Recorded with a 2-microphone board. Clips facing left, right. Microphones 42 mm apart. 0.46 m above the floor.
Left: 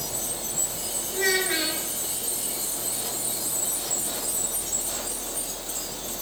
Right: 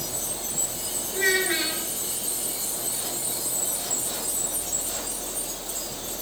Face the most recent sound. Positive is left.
turn(degrees=-10)  # may be behind; listen again after turning